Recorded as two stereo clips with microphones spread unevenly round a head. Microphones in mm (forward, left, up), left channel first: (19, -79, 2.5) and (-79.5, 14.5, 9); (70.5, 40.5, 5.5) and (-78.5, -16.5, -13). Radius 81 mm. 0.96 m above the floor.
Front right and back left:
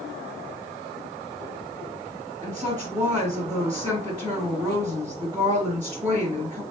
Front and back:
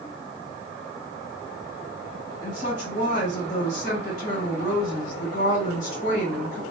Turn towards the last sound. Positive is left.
turn(degrees=60)